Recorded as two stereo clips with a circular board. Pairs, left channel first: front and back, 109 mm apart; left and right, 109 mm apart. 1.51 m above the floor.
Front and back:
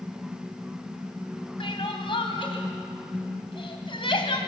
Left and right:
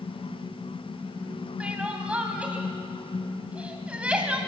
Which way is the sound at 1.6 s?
15° right.